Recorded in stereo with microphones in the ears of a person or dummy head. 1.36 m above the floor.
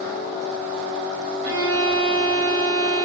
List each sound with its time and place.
1.4 s a violin: 70° right (ahead or behind), 0.9 m